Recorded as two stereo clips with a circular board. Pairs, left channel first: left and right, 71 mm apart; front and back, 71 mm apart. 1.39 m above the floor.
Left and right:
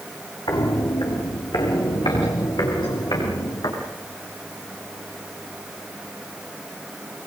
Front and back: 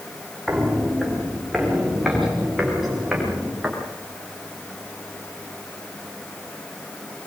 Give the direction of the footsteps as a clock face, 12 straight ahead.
9 o'clock.